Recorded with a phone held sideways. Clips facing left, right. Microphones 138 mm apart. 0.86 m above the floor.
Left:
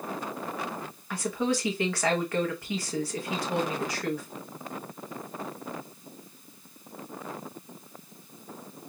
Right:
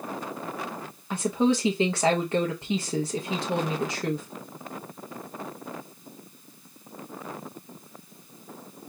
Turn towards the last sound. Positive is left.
turn(degrees=-25)  # may be behind; listen again after turning